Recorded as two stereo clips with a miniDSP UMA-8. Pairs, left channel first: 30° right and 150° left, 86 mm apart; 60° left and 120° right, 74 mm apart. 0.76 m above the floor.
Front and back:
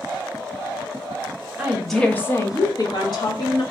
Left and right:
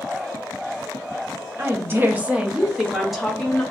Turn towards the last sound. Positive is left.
turn(degrees=-25)